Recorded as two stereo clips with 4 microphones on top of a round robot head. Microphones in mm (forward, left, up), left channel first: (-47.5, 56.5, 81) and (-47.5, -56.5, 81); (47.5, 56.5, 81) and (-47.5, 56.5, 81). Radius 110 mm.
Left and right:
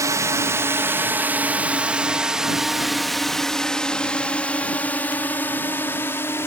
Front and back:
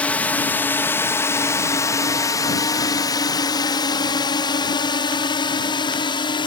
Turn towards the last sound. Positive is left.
turn(degrees=25)